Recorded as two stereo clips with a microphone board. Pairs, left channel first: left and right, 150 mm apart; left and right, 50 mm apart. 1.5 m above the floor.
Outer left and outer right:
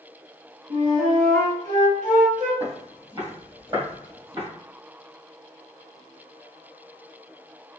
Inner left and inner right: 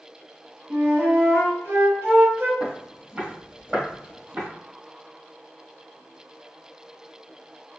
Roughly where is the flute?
Right.